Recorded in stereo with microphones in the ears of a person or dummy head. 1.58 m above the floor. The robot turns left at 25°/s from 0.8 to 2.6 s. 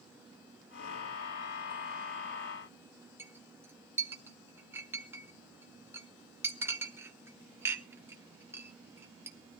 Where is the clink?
20° right (ahead or behind), 0.9 m.